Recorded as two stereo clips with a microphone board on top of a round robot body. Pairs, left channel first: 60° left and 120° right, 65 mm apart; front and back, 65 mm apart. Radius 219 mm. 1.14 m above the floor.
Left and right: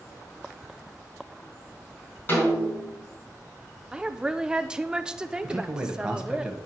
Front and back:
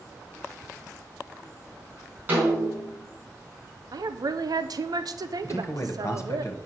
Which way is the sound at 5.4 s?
45° right.